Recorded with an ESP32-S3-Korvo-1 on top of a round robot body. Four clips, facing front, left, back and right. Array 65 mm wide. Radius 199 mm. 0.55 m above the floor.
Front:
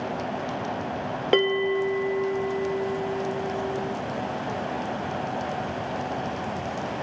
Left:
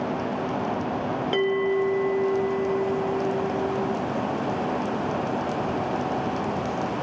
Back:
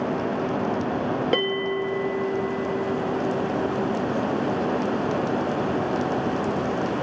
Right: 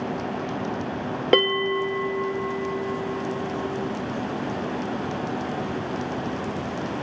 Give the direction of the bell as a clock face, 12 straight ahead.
3 o'clock.